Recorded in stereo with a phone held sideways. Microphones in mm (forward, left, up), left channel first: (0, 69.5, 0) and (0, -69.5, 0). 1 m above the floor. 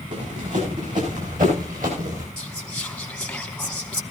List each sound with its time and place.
0.1 s running footsteps: 65° right (ahead or behind), 8 m; by 2.3 s 75° right (ahead or behind), 6 m
2.4 s whispering: 5° left (ahead or behind), 0.8 m